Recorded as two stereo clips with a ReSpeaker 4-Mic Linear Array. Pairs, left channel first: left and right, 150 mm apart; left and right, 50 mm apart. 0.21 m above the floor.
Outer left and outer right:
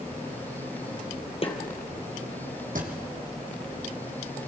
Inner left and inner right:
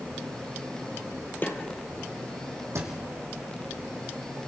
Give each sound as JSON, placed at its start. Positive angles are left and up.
{"t": 1.4, "sound": "a snare drum", "side_deg": 40, "distance_m": 2.5}
{"t": 2.8, "sound": "a thud", "side_deg": -65, "distance_m": 3.5}